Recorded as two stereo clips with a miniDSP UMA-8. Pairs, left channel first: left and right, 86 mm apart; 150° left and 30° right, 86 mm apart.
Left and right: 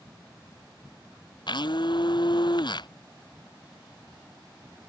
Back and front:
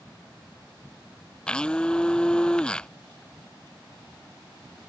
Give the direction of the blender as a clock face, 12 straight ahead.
10 o'clock.